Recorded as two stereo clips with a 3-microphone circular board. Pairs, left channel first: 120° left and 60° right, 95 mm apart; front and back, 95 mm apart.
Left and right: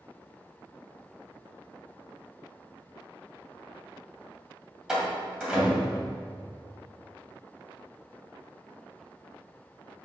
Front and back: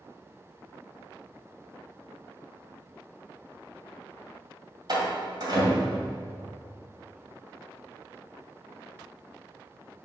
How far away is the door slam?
About 1.8 m.